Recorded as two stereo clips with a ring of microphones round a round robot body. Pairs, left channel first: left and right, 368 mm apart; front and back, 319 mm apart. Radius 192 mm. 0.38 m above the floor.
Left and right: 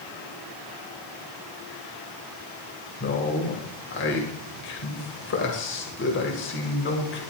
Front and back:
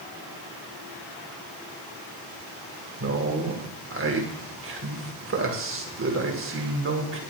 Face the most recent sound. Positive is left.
turn(degrees=140)